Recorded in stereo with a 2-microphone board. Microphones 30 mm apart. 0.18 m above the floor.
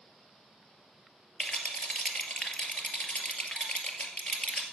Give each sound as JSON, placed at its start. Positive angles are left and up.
{"t": 1.4, "sound": "a rattle", "side_deg": 35, "distance_m": 2.0}